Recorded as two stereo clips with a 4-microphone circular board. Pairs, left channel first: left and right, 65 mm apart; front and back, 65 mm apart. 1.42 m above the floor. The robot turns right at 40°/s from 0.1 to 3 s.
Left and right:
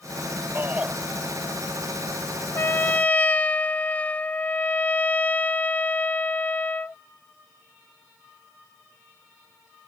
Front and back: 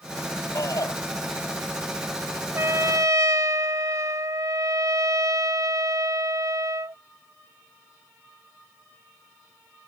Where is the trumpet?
135° left; by 7.0 s 155° left.